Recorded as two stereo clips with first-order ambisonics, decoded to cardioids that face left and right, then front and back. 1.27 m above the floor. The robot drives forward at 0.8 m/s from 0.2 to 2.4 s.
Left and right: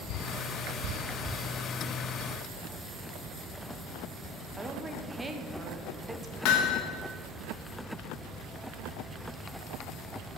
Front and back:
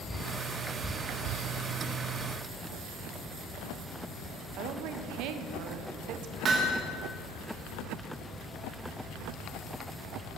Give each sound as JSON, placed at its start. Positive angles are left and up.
{"t": 4.6, "sound": "a woman speaking", "azimuth_deg": -170, "distance_m": 0.7}
{"t": 6.5, "sound": "hammering", "azimuth_deg": 115, "distance_m": 1.2}